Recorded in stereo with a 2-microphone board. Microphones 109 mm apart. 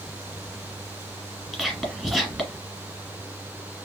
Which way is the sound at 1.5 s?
5° right (ahead or behind).